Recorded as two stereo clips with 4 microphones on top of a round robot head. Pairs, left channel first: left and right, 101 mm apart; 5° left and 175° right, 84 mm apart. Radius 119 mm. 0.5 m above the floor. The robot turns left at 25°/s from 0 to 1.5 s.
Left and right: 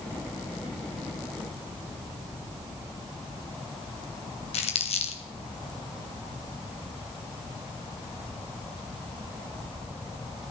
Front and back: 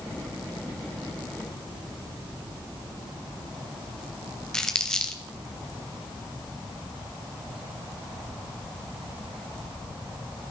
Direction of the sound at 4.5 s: 85° left.